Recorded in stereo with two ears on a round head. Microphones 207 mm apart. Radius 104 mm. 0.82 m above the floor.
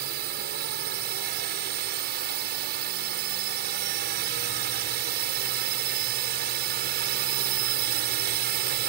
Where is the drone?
50° right (ahead or behind).